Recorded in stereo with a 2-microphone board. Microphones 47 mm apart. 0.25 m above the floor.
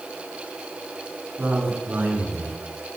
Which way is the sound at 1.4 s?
50° right (ahead or behind).